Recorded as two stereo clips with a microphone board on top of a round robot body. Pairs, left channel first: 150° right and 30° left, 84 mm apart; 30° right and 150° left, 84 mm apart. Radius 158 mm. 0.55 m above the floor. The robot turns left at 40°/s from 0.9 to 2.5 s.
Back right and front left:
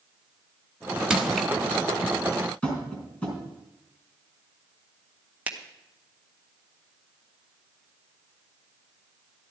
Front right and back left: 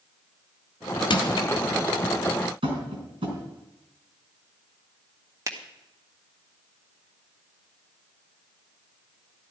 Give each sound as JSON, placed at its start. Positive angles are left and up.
{"t": 1.1, "sound": "crushing", "azimuth_deg": -50, "distance_m": 1.6}
{"t": 2.6, "sound": "tapping", "azimuth_deg": 135, "distance_m": 4.0}
{"t": 5.5, "sound": "a finger snap", "azimuth_deg": 105, "distance_m": 1.5}